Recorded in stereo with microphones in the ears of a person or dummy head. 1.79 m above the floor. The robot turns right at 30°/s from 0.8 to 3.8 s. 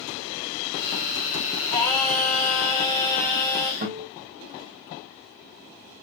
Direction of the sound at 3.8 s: 50° right (ahead or behind).